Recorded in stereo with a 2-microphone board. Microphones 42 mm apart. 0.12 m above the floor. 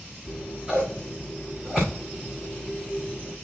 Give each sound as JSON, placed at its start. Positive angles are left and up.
{"t": 0.2, "sound": "scissors", "side_deg": -10, "distance_m": 5.5}